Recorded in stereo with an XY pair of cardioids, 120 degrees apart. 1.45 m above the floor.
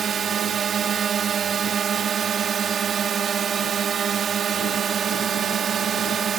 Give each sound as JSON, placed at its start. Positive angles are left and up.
{"t": 0.0, "sound": "a drone", "azimuth_deg": -45}